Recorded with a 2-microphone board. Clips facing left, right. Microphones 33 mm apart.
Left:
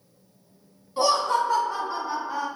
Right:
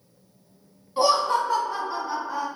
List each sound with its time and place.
1.0 s laughter: 25° right (ahead or behind), 1.9 m; by 2.5 s 20° left (ahead or behind), 1.3 m